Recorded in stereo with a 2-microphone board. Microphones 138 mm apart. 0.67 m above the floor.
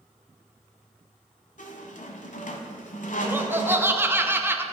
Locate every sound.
1.6 s a squeak: 70° left (ahead or behind), 1.1 m
3.2 s laughter: 15° right (ahead or behind), 0.8 m